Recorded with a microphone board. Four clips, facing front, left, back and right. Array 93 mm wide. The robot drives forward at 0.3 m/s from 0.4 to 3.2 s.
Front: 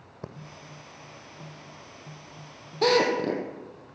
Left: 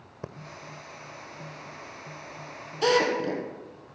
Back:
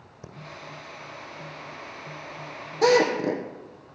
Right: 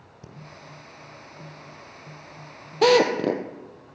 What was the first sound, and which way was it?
Breathing, 50° left.